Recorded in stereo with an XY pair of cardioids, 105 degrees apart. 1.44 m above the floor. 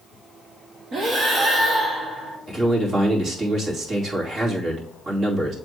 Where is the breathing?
55° right, 1.7 m.